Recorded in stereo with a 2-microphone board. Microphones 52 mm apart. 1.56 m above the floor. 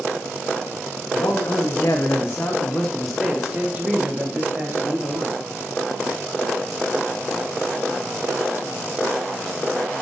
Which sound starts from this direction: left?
A man speaking, at 1.1 s.